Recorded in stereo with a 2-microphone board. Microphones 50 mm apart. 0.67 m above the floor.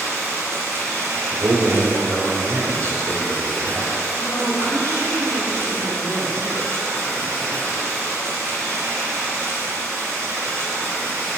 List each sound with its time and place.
0.0 s running water: 65° right (ahead or behind), 1.5 m
1.3 s a man speaking: 55° right (ahead or behind), 1.5 m
4.2 s a woman speaking: 45° left (ahead or behind), 1.1 m